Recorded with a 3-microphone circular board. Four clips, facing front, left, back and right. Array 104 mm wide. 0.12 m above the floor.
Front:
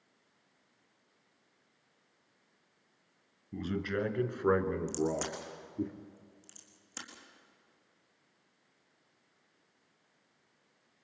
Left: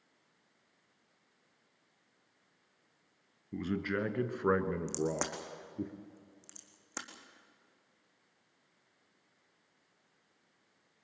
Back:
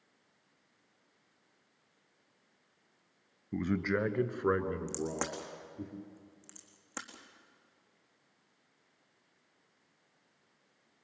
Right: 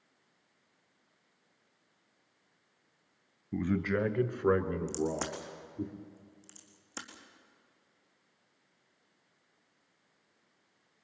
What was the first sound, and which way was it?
A man speaking, 155° right.